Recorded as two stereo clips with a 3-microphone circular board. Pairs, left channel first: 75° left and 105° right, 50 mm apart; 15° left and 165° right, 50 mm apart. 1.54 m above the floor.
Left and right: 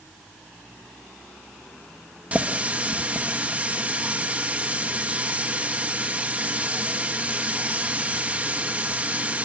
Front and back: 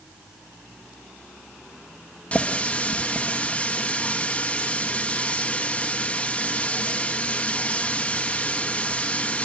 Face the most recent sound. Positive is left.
turn(degrees=-45)